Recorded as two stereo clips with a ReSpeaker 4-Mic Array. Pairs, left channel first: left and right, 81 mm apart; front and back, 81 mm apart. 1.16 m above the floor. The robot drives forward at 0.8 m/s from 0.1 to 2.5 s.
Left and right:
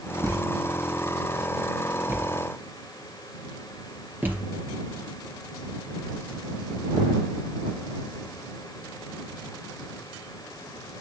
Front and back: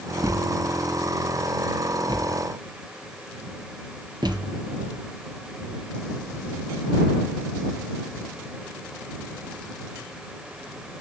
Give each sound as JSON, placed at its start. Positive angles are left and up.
{"t": 0.2, "sound": "a thud", "azimuth_deg": -130, "distance_m": 1.9}